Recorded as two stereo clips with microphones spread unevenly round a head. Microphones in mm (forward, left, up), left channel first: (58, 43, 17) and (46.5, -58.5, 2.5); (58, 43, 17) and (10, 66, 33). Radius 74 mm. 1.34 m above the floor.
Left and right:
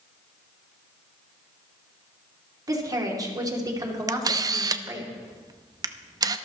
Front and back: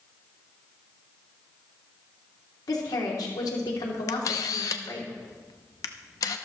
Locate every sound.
2.7 s a woman speaking: 40° right, 3 m
4.1 s a camera shutter: 50° right, 0.8 m